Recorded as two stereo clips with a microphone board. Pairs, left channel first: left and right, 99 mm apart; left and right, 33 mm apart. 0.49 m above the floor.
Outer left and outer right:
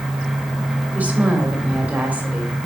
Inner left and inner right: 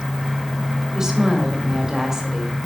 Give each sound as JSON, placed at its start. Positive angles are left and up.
{"t": 0.9, "sound": "a woman speaking", "side_deg": -15, "distance_m": 2.0}